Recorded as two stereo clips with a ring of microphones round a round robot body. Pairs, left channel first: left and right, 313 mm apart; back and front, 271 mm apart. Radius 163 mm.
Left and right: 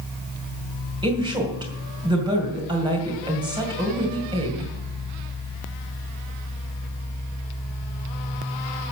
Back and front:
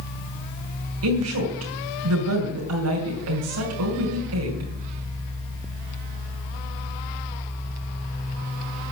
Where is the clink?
No clink in this recording.